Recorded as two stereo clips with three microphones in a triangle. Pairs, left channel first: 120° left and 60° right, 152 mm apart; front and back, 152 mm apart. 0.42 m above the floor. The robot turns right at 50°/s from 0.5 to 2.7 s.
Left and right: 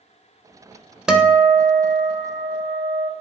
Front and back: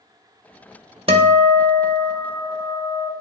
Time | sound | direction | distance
1.1 | a guitar | 145° right | 0.8 m